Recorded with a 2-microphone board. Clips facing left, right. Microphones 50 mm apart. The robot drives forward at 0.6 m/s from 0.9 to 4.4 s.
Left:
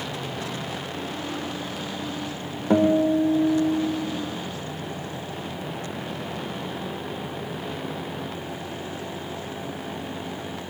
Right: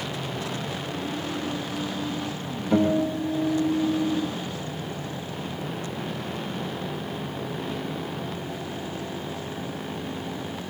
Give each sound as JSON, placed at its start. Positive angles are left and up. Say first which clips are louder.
{"t": 2.7, "sound": "a guitar", "louder": "left 4 dB", "side_deg": 80, "distance_m": 5.0}